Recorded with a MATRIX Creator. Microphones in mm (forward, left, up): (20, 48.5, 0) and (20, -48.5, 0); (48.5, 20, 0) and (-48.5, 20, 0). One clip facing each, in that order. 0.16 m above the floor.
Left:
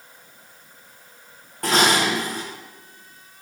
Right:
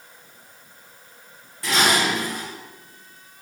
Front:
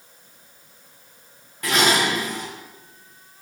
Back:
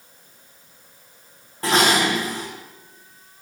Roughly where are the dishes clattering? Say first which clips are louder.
Left 2 dB, back 2 dB; behind left.